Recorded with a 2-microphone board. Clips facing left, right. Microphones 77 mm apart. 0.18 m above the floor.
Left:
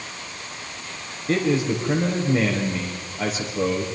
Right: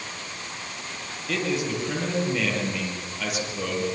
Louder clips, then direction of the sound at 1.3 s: Left 6 dB; 35° left (ahead or behind).